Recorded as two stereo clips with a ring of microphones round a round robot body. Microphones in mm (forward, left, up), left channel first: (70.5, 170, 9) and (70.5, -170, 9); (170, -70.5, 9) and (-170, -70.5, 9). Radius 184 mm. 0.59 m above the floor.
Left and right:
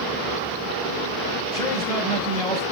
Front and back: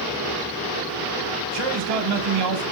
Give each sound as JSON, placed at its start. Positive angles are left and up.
{"t": 1.5, "sound": "a man speaking", "azimuth_deg": 170, "distance_m": 3.0}